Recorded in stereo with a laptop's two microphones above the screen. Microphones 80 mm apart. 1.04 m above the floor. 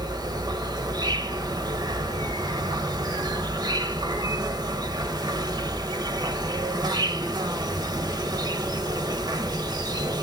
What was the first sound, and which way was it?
An insect, 60° right (ahead or behind).